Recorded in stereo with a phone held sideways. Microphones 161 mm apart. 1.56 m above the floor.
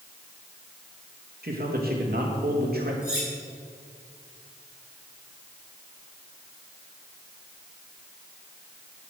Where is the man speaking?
70° right (ahead or behind), 3 m.